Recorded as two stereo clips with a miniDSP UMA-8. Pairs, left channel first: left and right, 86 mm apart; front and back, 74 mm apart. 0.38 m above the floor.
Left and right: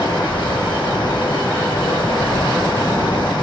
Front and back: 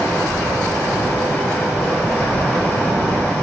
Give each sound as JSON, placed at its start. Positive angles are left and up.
{"t": 0.0, "sound": "running water", "azimuth_deg": 65, "distance_m": 1.8}